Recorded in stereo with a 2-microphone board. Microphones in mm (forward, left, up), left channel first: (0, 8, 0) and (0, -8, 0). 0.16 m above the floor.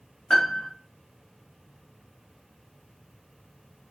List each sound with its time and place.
0.3 s a piano: 75° left (ahead or behind), 3.5 m